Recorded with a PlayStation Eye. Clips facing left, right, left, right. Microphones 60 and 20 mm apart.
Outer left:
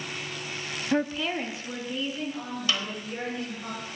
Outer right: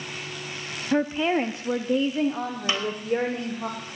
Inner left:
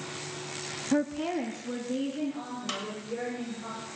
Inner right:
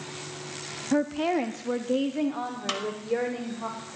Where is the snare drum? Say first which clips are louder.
Outer right 3 dB, inner right 5 dB; 25° right (ahead or behind), 1.4 m.